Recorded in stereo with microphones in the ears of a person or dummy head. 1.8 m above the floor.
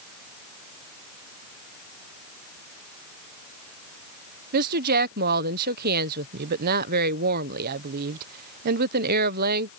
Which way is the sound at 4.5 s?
50° right (ahead or behind).